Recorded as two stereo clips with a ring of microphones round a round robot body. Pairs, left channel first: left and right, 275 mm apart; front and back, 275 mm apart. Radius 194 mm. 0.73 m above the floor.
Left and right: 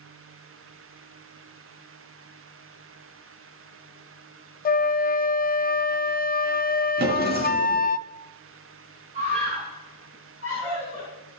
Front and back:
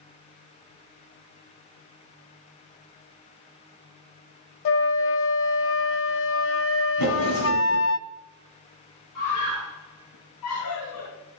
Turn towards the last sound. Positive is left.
turn(degrees=-30)